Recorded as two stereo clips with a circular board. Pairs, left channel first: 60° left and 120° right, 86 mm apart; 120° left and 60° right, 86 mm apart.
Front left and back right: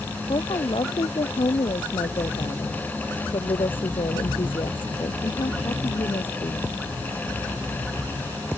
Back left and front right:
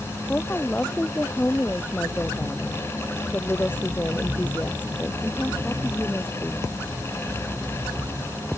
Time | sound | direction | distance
0.3 | a woman speaking | 50° left | ?